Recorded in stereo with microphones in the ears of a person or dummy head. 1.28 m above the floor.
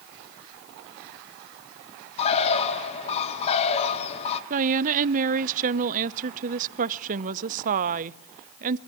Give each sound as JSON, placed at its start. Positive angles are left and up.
{"t": 2.2, "sound": "a bird", "side_deg": 35, "distance_m": 1.1}
{"t": 4.5, "sound": "a woman speaking", "side_deg": -40, "distance_m": 0.6}